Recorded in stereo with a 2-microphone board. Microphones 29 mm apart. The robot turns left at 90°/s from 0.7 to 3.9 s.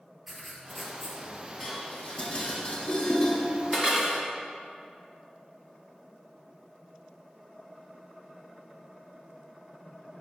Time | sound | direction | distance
0.3 | writing | 170° right | 1.2 m
1.6 | dishes clattering | 10° left (ahead or behind) | 1.2 m